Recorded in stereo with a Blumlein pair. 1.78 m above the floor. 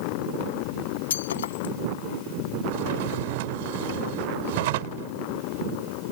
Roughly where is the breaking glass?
Ahead left.